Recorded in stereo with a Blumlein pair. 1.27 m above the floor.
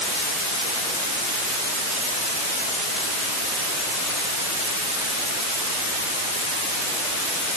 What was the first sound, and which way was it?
Only background noise.